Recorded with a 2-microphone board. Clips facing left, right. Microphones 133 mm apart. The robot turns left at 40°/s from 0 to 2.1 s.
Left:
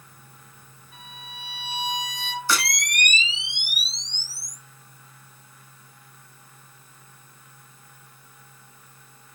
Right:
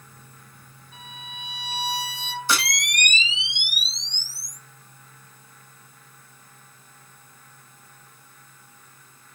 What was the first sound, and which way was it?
A violin, centre (ahead or behind).